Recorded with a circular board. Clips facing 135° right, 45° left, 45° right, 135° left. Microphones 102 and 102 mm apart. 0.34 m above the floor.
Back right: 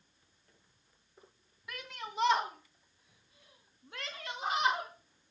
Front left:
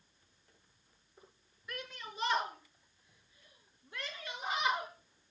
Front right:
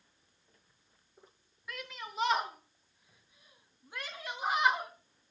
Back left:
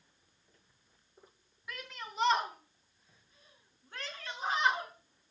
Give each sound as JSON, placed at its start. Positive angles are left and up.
{"t": 1.7, "sound": "a shout", "azimuth_deg": -135, "distance_m": 3.5}